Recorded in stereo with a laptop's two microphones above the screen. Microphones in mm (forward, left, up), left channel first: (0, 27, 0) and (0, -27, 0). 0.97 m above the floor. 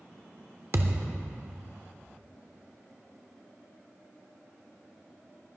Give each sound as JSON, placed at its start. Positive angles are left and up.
{"t": 0.7, "sound": "a thud", "side_deg": -60, "distance_m": 0.9}